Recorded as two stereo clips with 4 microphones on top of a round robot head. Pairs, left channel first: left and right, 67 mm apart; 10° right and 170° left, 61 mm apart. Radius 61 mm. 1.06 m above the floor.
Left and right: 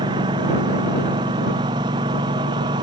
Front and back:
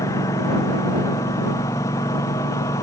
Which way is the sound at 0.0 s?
60° right.